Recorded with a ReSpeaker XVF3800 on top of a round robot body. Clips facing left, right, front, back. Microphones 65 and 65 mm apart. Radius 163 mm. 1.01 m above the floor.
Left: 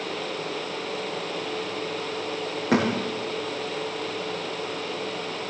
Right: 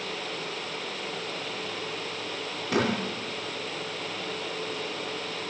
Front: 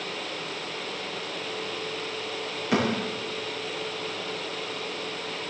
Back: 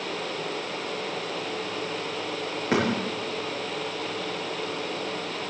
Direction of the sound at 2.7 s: 115° left.